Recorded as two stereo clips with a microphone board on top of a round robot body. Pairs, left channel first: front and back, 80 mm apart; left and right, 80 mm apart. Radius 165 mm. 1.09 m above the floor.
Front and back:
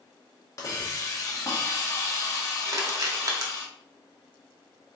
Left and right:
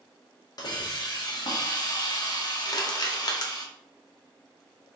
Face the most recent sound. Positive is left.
turn(degrees=130)